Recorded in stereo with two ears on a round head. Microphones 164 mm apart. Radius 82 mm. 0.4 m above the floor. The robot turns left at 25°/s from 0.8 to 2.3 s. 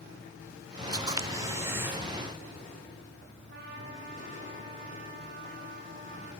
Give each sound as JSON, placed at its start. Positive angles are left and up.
{"t": 0.9, "sound": "a camera shutter", "side_deg": -20, "distance_m": 1.4}
{"t": 3.5, "sound": "a trumpet", "side_deg": -55, "distance_m": 9.0}